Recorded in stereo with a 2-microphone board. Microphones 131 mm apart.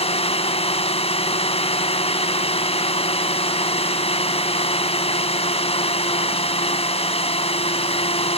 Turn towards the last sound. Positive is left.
turn(degrees=50)  # may be behind; listen again after turning